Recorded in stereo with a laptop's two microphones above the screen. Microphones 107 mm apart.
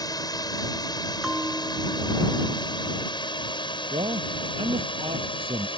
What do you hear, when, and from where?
0.0 s a drone: 35° left (ahead or behind); by 5.8 s 50° left (ahead or behind)
1.2 s a bell: 5° right (ahead or behind)
3.9 s a man speaking: 55° right (ahead or behind)